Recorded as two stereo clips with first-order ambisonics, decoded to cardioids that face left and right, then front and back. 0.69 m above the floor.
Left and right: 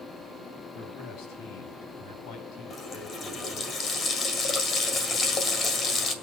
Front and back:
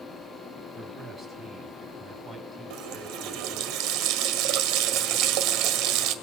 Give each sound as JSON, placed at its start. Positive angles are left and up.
{"t": 0.8, "sound": "a man speaking", "azimuth_deg": 105, "distance_m": 4.5}
{"t": 2.7, "sound": "a running tap", "azimuth_deg": 155, "distance_m": 1.7}